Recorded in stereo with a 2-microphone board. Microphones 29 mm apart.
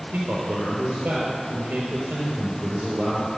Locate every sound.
0.1 s a man speaking: 65° right (ahead or behind), 4 m